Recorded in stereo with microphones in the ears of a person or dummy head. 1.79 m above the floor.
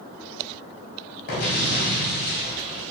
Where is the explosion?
45° left (ahead or behind), 2.5 m.